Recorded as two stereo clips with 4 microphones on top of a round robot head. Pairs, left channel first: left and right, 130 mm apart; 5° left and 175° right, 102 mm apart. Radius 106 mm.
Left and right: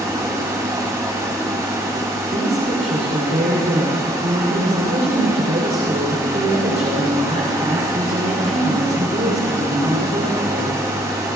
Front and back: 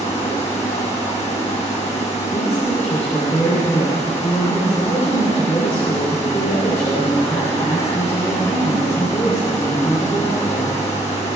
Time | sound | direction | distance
0.0 | running water | 25° right | 2.5 m
2.3 | a woman speaking | 60° right | 3.5 m